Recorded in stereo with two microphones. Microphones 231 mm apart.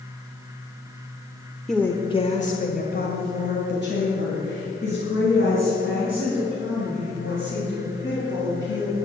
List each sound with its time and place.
1.7 s a woman speaking: centre (ahead or behind), 1.0 m; by 8.9 s 60° left (ahead or behind), 8.5 m